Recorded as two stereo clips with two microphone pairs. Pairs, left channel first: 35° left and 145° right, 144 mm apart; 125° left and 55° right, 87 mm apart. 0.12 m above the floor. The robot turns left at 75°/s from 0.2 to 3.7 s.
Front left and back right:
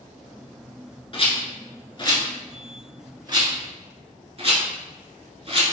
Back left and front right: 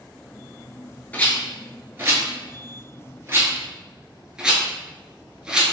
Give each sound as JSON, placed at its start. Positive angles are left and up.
{"t": 1.1, "sound": "a rattle", "azimuth_deg": 60, "distance_m": 1.1}